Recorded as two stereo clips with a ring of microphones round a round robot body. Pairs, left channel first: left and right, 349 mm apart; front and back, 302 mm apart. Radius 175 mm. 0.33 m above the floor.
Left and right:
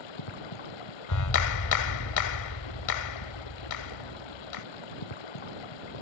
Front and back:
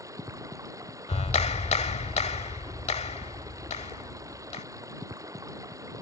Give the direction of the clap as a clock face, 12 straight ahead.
10 o'clock.